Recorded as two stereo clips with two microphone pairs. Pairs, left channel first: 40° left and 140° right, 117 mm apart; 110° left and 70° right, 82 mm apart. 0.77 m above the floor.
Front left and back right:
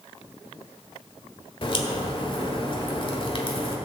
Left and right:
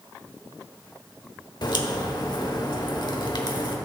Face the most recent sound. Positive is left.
turn(degrees=85)